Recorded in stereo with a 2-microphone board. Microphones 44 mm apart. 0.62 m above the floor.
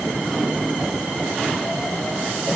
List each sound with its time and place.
Only background noise.